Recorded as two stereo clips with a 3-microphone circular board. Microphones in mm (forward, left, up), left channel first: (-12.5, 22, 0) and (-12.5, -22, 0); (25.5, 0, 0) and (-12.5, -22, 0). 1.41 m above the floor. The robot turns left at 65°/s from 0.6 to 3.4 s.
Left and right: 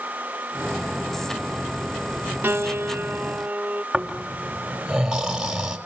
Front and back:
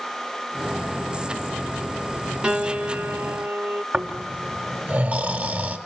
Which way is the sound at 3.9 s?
160° right.